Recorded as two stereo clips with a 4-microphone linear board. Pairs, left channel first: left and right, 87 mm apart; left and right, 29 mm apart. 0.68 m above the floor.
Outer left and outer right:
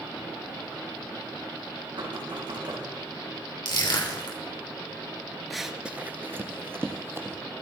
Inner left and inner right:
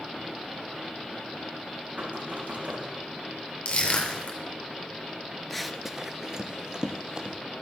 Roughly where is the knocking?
Right.